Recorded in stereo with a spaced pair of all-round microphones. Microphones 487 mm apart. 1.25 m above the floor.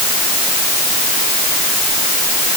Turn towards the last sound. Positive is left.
No sound to turn to.